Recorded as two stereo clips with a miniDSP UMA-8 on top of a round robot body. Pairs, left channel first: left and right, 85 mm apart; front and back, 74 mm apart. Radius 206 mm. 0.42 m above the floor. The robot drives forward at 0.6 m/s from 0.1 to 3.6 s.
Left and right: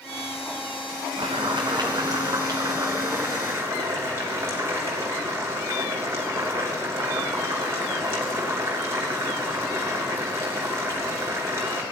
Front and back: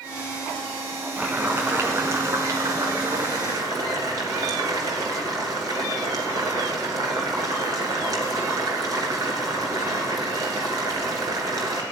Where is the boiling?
110° right, 1.2 m; by 11.8 s 150° right, 2 m.